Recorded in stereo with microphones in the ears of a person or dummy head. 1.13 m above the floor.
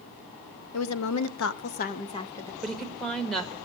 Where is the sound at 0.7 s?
85° left, 0.7 m; by 2.5 s 10° left (ahead or behind), 0.6 m.